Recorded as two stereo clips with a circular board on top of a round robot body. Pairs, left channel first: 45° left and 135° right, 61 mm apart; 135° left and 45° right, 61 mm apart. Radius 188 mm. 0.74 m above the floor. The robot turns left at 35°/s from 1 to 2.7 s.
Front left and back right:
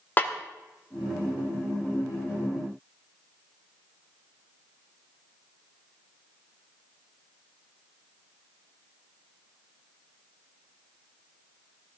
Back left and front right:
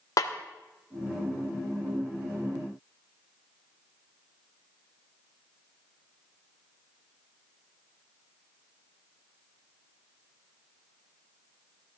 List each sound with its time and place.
0.2 s a snare drum: 110° left, 1.0 m